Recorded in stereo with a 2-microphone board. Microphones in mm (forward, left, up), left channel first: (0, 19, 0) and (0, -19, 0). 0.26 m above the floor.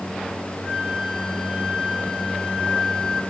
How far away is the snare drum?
No snare drum in this recording.